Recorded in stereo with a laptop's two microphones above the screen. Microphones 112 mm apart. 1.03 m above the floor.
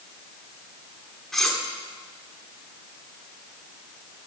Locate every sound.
1.3 s cutlery clinking: 5° left (ahead or behind), 1.9 m